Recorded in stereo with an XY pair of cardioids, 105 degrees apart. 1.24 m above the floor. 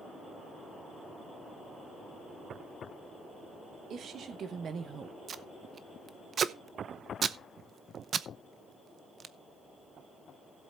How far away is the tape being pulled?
About 0.8 m.